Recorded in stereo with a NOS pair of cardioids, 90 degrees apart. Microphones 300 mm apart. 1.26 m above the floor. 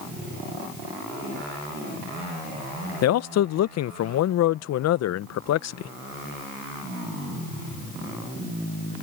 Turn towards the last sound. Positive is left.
turn(degrees=60)